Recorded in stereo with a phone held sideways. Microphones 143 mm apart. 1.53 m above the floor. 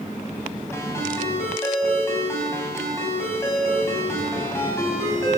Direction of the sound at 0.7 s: 20° left (ahead or behind).